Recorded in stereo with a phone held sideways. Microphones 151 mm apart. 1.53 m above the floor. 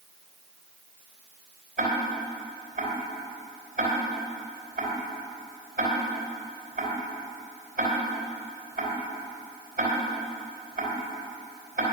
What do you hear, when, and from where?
1.8 s ticking: 60° right (ahead or behind), 3 m